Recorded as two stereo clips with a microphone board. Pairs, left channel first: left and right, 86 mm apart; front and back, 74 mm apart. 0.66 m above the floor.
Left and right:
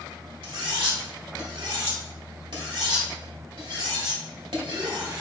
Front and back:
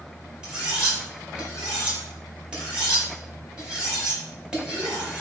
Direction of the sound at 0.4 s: 105° right.